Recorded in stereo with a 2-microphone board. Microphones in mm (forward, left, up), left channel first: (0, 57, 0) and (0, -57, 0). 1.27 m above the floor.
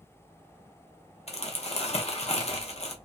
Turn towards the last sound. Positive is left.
turn(degrees=70)  # may be behind; listen again after turning